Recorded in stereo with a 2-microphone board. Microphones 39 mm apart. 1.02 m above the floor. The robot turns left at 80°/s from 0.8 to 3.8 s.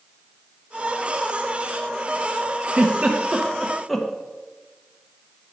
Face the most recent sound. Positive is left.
turn(degrees=5)  # may be behind; listen again after turning